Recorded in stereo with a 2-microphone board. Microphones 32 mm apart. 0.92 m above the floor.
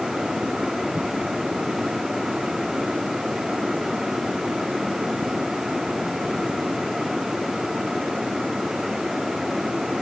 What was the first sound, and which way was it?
Only background noise.